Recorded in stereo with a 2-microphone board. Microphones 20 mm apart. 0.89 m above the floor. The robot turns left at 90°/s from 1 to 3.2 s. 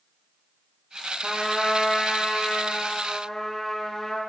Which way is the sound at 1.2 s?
165° right.